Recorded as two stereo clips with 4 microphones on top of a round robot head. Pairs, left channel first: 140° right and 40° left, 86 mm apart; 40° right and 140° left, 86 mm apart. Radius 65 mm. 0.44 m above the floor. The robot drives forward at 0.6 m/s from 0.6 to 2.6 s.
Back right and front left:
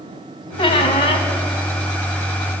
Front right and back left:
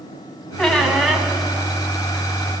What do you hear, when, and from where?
0.6 s a squeak: 120° right, 2.5 m; by 1.3 s 130° right, 3 m